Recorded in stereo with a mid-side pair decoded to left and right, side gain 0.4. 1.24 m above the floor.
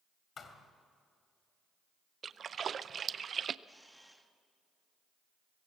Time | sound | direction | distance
0.4 | a thud | 50° left | 2.5 m
2.2 | a splash | 50° right | 0.5 m
3.7 | a camera shutter | 5° right | 1.7 m